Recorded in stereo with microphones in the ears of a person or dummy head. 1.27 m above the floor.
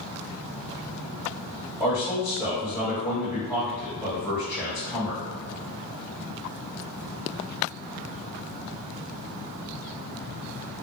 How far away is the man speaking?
About 1.7 m.